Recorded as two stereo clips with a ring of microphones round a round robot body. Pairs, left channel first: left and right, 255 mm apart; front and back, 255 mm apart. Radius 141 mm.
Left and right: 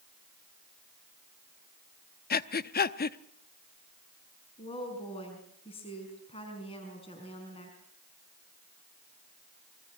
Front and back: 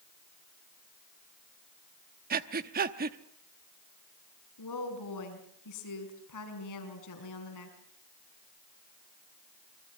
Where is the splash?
No splash in this recording.